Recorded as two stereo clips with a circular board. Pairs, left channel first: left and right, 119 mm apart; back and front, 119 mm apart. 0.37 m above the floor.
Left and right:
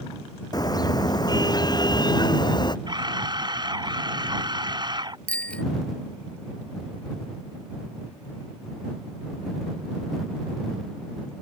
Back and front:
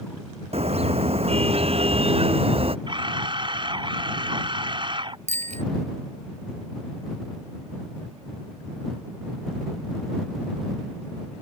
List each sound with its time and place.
0.5 s a car horn: 35° left; by 2.8 s 40° left
2.9 s a camera shutter: 45° right
5.3 s a bicycle bell: 10° left